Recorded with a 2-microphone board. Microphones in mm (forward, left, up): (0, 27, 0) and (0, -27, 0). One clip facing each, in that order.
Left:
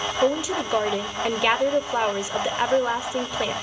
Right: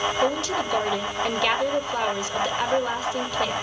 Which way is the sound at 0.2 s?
15° left (ahead or behind).